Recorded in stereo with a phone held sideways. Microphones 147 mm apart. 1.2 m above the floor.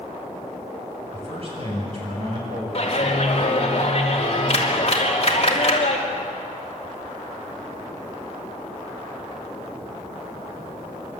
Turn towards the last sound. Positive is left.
turn(degrees=45)  # may be behind; listen again after turning